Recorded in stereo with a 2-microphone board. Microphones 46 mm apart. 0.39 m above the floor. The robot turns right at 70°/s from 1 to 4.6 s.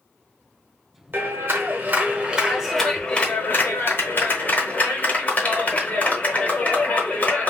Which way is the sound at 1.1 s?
110° right.